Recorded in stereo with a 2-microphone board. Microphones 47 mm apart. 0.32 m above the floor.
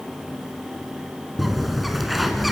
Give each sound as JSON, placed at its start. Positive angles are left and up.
{"t": 1.4, "sound": "a bird", "side_deg": 0, "distance_m": 1.9}